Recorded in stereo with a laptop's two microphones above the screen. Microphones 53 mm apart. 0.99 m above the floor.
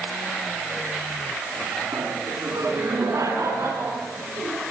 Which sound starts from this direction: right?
Laughter, at 1.9 s.